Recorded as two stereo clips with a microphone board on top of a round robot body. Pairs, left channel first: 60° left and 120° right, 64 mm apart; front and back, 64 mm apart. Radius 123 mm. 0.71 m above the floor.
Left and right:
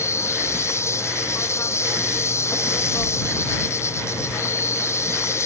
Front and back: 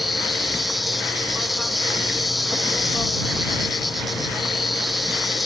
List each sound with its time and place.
0.0 s an insect: 90° left